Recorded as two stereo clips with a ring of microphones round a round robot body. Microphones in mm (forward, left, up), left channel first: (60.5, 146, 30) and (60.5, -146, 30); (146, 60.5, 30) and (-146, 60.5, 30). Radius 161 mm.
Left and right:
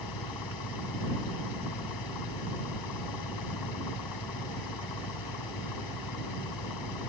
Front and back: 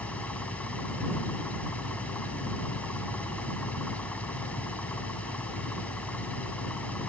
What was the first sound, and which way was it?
An engine running, 85° left.